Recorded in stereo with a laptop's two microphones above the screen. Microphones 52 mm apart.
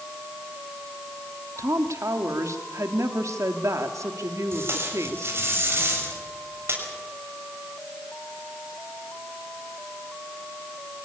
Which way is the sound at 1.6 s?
75° right (ahead or behind).